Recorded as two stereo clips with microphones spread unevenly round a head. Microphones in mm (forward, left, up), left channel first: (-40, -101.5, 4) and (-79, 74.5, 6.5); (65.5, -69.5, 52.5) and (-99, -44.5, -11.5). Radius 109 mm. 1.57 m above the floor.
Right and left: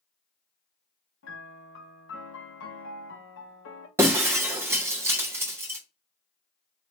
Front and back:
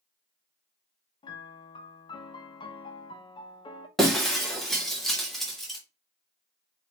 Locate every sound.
1.2 s a piano: 60° right, 0.7 m
4.0 s breaking glass: 40° left, 0.7 m